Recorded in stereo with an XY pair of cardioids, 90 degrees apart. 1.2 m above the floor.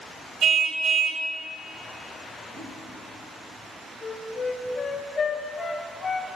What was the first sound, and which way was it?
A car horn, 65° right.